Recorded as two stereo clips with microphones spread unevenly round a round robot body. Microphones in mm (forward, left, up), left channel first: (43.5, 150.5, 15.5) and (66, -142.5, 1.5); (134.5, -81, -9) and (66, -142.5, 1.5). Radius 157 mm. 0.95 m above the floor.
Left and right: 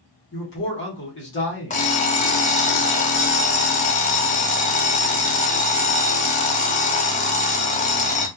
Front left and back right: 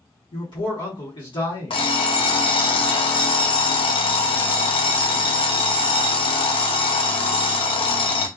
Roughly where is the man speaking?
Ahead left.